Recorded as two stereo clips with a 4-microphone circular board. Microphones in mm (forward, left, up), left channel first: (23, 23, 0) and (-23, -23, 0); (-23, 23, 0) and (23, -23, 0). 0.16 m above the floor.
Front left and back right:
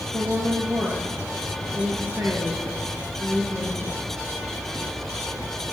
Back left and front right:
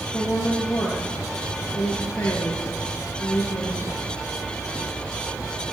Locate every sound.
0.1 s a woman speaking: 175° right, 3 m